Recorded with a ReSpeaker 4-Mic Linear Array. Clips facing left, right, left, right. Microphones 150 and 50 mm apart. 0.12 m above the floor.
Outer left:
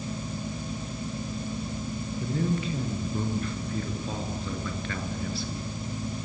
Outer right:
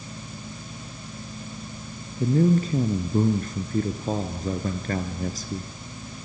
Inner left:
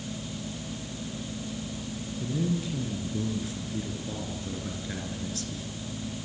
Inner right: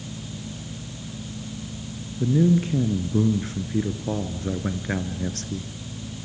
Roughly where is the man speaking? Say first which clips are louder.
Outer right 9 dB, inner right 10 dB; right.